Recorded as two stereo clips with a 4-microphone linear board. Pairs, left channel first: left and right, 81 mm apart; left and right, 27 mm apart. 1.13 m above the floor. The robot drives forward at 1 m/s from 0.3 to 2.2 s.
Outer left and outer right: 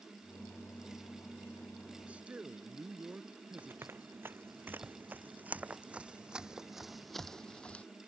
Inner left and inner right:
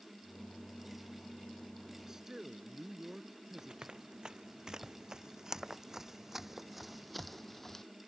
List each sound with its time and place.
2.1 s a man speaking: 15° right (ahead or behind)
3.6 s running footsteps: 30° right (ahead or behind); by 7.9 s 20° left (ahead or behind)